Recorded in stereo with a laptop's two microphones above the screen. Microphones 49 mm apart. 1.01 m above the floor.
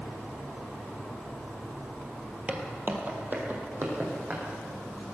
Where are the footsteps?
25° right (ahead or behind), 1.2 m; by 4.4 s 40° right (ahead or behind), 2.5 m.